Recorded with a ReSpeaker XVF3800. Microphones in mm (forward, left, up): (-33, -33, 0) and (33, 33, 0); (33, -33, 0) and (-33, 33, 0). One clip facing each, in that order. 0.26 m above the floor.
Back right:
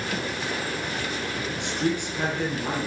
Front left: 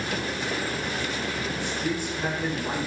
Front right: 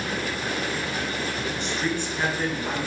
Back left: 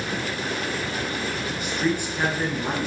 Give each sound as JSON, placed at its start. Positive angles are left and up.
{"t": 1.6, "sound": "a man speaking", "azimuth_deg": -140, "distance_m": 3.5}